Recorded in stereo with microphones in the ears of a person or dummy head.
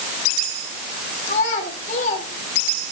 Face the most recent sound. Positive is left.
turn(degrees=45)  # may be behind; listen again after turning